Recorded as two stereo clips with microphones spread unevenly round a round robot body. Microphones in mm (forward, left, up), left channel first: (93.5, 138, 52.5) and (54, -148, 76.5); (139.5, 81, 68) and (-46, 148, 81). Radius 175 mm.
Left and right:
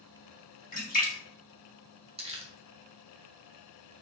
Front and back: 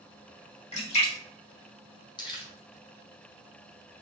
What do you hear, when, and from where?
0.7 s a splash: 30° left, 2.5 m
2.2 s crumpling: 40° right, 1.5 m